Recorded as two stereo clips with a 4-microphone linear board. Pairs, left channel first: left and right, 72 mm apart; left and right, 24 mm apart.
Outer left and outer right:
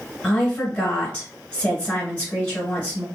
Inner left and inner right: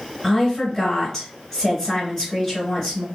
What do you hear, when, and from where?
0.2 s a woman speaking: 15° left (ahead or behind), 1.8 m